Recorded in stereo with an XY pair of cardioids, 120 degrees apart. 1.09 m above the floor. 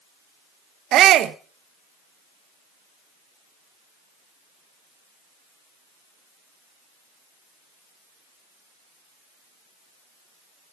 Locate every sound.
0.9 s a shout: 65° right, 0.9 m